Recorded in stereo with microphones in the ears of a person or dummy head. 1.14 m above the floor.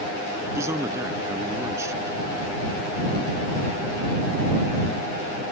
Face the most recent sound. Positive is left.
turn(degrees=-20)  # may be behind; listen again after turning